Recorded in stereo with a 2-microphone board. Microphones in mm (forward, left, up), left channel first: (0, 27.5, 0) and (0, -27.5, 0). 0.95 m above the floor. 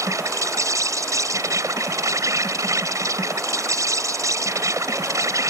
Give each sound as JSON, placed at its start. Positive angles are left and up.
{"t": 0.0, "sound": "an insect", "side_deg": -80}